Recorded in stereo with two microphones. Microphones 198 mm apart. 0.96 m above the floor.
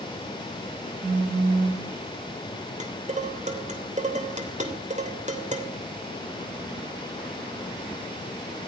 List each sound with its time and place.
1.0 s a phone buzzing: 80° right, 4 m
2.8 s dishes clattering: 40° right (ahead or behind), 2.5 m